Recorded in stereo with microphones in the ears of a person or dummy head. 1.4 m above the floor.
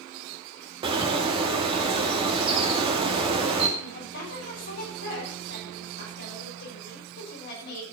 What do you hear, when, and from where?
0.8 s a bird: 25° right (ahead or behind), 2 m
3.8 s a woman speaking: 65° left (ahead or behind), 6 m